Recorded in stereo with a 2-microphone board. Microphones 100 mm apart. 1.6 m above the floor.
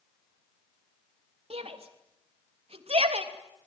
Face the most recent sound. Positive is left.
turn(degrees=-85)